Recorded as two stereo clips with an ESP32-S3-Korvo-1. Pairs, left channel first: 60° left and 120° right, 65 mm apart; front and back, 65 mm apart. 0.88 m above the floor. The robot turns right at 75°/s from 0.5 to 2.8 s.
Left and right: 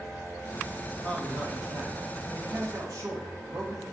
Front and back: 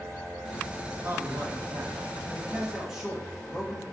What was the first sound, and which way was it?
A man speaking, 125° left.